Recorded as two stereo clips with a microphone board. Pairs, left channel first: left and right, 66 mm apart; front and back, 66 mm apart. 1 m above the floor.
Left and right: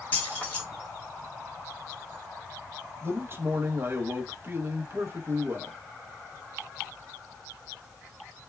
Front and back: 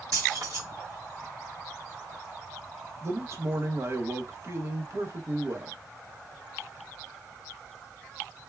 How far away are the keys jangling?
About 1.5 m.